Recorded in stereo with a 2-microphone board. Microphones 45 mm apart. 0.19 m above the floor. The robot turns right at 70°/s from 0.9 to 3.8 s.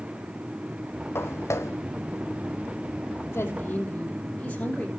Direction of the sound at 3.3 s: 120° left.